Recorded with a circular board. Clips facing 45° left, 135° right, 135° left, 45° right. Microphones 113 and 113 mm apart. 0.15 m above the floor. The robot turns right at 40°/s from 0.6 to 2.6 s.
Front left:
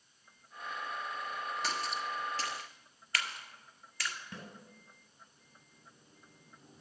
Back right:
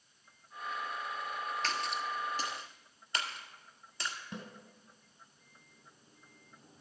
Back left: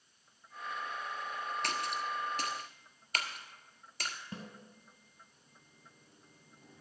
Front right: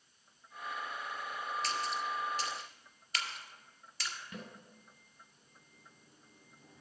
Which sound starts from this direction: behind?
A snare drum, at 4.3 s.